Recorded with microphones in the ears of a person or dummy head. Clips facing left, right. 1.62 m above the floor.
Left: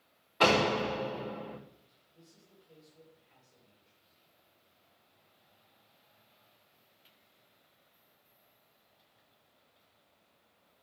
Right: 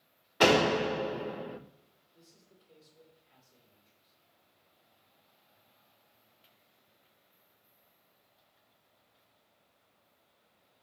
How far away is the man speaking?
About 7.5 m.